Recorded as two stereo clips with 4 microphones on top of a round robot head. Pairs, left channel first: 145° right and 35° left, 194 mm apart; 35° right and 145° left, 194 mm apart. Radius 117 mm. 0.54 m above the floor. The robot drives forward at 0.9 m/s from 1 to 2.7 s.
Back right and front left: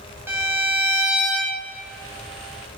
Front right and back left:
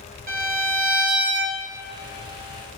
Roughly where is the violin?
Behind left.